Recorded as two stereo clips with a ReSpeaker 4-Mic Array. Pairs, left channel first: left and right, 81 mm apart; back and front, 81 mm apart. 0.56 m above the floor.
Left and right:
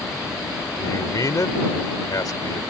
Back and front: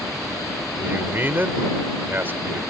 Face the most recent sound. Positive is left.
turn(degrees=60)